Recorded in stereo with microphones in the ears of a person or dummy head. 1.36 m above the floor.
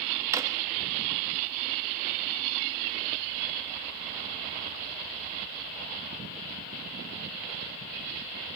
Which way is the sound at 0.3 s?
15° right (ahead or behind).